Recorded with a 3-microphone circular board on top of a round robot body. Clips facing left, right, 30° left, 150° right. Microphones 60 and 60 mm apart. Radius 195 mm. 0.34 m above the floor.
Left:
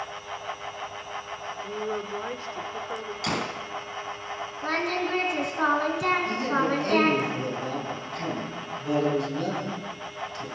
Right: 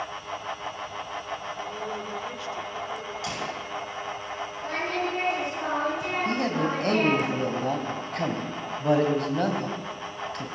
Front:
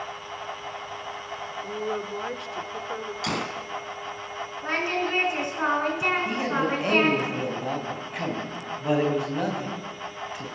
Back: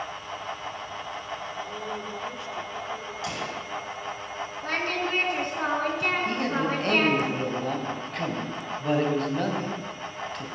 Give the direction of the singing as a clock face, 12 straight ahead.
9 o'clock.